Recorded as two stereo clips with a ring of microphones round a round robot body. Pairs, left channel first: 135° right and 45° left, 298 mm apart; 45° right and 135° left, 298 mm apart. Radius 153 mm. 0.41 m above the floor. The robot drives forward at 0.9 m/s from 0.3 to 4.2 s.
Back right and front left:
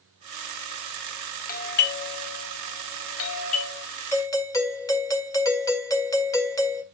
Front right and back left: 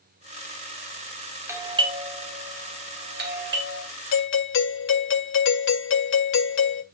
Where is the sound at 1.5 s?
150° right, 1.3 m; by 3.8 s 175° right, 3 m.